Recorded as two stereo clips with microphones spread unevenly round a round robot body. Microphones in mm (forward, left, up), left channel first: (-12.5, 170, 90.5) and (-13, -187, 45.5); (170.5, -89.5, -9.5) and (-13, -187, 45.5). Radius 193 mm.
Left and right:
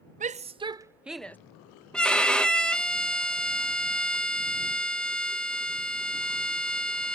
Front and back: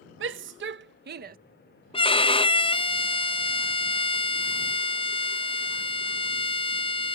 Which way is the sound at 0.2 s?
145° right.